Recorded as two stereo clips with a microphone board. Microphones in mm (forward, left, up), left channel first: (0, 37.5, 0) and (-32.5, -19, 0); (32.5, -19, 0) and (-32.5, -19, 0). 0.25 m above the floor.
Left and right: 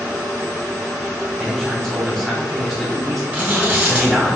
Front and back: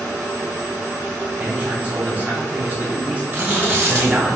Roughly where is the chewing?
Behind.